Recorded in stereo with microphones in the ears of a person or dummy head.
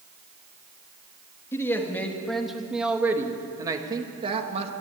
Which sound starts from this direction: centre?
A man speaking, at 1.5 s.